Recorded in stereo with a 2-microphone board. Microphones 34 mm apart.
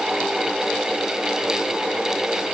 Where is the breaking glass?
I don't hear breaking glass.